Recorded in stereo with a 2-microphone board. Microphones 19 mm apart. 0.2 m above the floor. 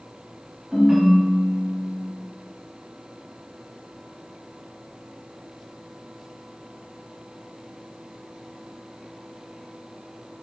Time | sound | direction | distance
0.7 | a ringtone | 35° right (ahead or behind) | 1.2 m